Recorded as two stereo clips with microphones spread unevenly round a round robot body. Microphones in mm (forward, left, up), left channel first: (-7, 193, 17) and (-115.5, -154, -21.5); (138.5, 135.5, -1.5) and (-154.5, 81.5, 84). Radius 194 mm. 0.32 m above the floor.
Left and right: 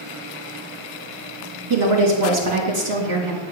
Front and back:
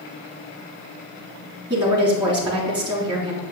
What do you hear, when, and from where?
1.7 s a woman speaking: 85° right, 3 m